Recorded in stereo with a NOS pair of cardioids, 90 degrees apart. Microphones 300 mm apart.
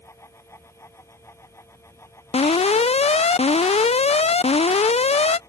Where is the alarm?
20° left.